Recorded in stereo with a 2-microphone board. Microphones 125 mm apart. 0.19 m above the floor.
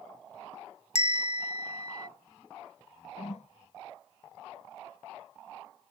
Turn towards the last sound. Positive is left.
turn(degrees=65)  # may be behind; listen again after turning